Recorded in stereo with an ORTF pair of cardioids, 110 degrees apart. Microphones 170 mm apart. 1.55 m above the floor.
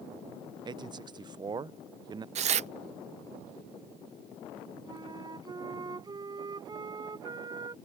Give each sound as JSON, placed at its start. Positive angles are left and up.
{"t": 0.7, "sound": "a man speaking", "azimuth_deg": -25}
{"t": 2.4, "sound": "tearing paper", "azimuth_deg": -45}
{"t": 4.9, "sound": "a flute", "azimuth_deg": -25}